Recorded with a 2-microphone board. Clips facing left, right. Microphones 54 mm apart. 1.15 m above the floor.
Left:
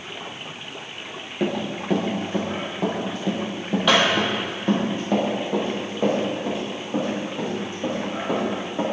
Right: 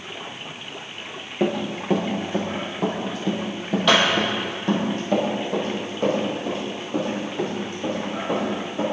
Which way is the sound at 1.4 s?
15° right (ahead or behind).